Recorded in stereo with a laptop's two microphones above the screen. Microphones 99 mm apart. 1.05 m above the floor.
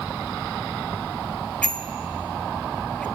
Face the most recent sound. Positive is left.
turn(degrees=15)  # may be behind; listen again after turning